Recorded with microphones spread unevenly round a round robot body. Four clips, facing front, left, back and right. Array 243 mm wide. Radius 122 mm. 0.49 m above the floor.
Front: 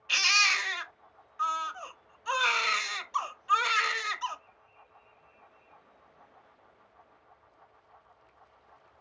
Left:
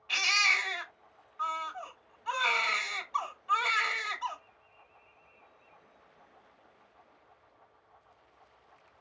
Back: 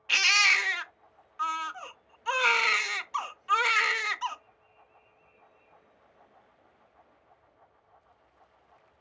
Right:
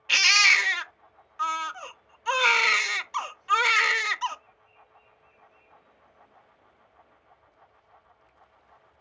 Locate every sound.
0.1 s a baby crying: 110° right, 0.6 m